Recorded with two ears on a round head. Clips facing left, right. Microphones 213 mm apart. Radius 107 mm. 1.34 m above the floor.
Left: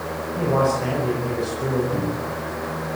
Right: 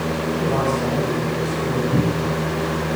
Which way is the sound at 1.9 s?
35° right (ahead or behind).